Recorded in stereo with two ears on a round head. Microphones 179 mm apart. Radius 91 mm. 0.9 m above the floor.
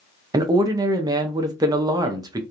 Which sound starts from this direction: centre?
A man speaking, at 0.3 s.